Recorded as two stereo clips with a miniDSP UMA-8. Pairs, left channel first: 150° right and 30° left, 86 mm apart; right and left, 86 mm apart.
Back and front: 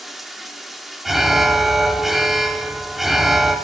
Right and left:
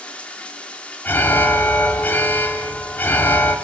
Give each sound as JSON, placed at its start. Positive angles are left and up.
{"t": 0.0, "sound": "running water", "azimuth_deg": -55, "distance_m": 1.0}
{"t": 1.1, "sound": "an alarm", "azimuth_deg": -55, "distance_m": 0.8}